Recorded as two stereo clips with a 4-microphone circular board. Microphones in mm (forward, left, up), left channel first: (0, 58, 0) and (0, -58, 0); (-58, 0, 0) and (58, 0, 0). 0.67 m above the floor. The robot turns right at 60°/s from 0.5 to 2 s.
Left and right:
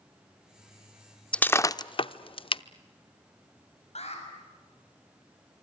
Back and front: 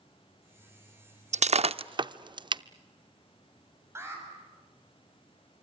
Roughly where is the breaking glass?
Ahead.